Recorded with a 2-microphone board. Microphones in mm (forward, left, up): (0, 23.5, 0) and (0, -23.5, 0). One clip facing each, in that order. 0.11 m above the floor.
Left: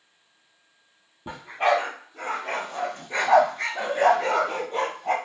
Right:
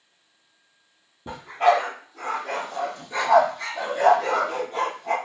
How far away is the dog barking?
About 1.3 m.